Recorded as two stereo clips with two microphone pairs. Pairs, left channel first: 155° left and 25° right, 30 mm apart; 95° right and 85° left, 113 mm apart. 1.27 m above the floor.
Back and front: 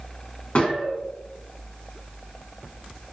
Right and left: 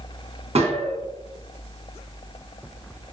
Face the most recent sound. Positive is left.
turn(degrees=110)